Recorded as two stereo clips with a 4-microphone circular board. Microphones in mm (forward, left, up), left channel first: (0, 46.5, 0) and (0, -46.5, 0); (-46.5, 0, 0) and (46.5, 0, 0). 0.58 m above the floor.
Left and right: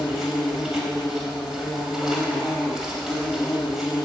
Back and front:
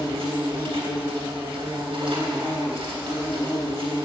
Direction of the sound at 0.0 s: 5° right.